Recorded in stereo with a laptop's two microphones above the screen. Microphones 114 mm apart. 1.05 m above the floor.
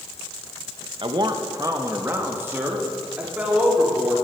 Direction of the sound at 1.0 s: 50° right (ahead or behind).